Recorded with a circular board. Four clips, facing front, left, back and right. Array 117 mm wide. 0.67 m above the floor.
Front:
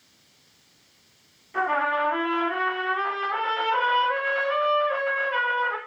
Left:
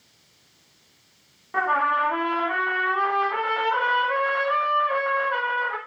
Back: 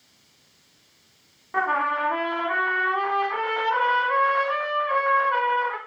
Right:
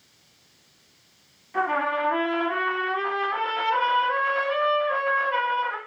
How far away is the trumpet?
About 1.1 m.